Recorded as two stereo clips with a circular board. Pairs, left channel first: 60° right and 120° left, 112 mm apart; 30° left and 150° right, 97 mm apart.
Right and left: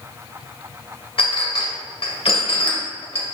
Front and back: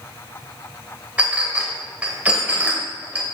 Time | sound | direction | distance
1.2 | a clink | 75° right | 1.5 m